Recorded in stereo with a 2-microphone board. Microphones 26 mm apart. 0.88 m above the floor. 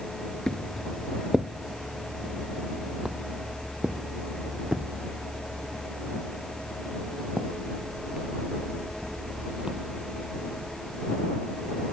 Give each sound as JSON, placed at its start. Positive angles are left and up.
{"t": 0.5, "sound": "footsteps", "side_deg": 20}